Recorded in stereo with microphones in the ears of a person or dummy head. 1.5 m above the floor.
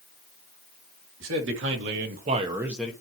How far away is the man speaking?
About 2.5 m.